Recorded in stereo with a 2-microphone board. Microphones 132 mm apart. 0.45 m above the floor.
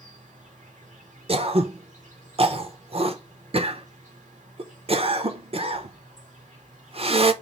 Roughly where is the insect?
Right.